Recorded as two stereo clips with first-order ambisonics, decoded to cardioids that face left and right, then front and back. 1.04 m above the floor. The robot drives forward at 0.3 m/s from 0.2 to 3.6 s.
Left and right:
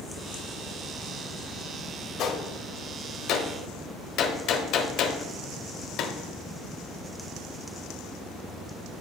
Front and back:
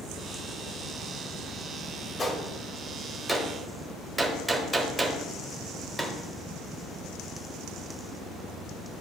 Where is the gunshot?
70° left, 1.0 m; by 6.2 s 100° left, 1.0 m.